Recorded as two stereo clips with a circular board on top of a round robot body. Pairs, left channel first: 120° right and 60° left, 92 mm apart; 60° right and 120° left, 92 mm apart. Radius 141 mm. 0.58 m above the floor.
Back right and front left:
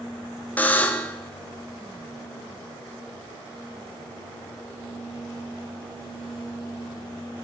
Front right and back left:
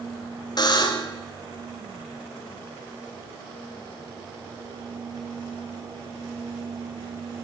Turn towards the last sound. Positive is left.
turn(degrees=-55)